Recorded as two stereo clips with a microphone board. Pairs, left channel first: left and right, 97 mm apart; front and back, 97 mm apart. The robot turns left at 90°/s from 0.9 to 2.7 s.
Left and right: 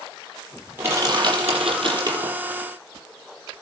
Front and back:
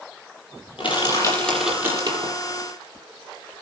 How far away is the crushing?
About 5.5 m.